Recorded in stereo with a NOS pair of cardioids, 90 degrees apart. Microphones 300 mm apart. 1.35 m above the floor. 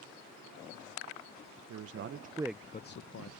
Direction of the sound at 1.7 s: 55° right.